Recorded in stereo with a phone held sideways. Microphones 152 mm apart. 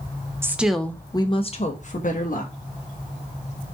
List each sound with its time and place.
0.4 s a woman speaking: 15° right (ahead or behind), 0.7 m; by 2.5 s 65° left (ahead or behind), 1.3 m